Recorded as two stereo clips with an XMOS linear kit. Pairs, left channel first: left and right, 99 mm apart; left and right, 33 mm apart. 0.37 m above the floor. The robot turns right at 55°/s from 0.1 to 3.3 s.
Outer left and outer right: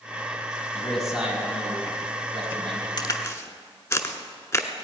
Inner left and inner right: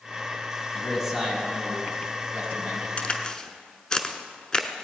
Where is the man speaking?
165° left, 2.5 m; by 2.9 s 75° right, 2.5 m.